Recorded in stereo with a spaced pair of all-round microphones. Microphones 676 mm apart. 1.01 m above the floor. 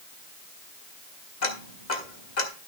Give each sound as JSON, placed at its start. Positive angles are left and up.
{"t": 1.4, "sound": "ticking", "side_deg": 75, "distance_m": 1.5}